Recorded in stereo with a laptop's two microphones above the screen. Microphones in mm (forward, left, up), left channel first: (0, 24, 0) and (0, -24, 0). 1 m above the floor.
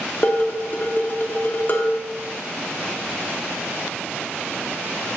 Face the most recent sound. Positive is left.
turn(degrees=40)  # may be behind; listen again after turning